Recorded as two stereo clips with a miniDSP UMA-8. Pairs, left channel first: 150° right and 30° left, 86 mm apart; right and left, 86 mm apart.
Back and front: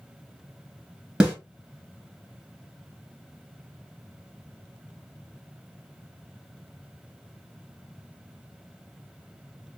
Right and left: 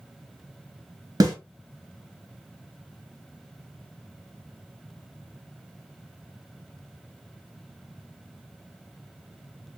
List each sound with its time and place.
1.2 s a snare drum: 105° left, 1.5 m